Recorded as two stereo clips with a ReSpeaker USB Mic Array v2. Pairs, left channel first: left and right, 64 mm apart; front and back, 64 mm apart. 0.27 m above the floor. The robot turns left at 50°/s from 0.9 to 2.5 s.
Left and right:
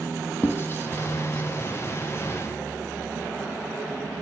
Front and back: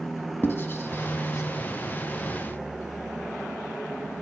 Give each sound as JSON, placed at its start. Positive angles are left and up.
{"t": 0.4, "sound": "writing", "azimuth_deg": 50, "distance_m": 1.0}